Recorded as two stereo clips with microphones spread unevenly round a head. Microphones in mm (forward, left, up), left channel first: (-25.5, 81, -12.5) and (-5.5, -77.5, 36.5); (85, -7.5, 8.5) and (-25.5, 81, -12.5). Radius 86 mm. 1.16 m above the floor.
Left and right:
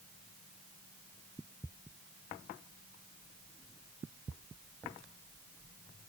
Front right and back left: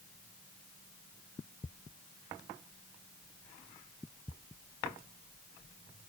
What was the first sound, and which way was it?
Only background noise.